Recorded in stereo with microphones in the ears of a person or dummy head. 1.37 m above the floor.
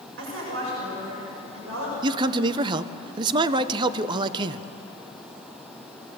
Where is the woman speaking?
80° right, 7 m.